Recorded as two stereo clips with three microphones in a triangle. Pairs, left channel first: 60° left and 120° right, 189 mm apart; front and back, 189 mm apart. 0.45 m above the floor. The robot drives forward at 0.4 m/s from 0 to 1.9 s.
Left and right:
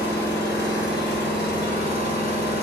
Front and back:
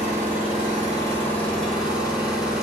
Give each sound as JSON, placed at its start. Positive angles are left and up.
{"t": 0.0, "sound": "an engine running", "azimuth_deg": 55, "distance_m": 1.2}